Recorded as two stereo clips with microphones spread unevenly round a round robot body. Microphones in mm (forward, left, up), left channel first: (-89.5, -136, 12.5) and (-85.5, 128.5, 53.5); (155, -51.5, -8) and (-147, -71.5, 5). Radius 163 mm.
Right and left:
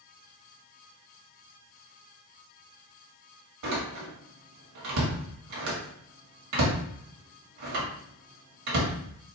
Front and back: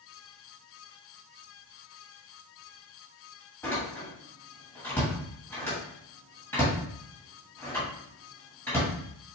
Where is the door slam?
85° left, 1.7 m.